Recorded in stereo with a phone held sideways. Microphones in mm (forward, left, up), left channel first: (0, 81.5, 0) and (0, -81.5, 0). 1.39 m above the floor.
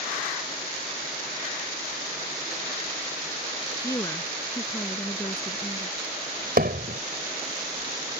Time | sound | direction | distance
3.8 | a woman speaking | 20° left (ahead or behind) | ?
6.6 | hammering | 70° right (ahead or behind) | ?